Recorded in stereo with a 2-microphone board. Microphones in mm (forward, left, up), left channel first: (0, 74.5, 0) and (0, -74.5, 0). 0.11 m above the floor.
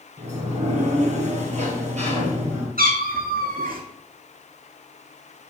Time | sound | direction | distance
0.2 | a sliding door | 50° right (ahead or behind) | 2.5 m
2.8 | a cat meowing | 80° right | 1.5 m